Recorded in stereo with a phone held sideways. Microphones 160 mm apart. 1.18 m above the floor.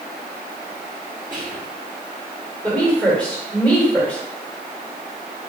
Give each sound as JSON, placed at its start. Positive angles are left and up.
{"t": 1.3, "sound": "whispering", "side_deg": -30, "distance_m": 0.8}
{"t": 2.6, "sound": "a woman speaking", "side_deg": 10, "distance_m": 1.9}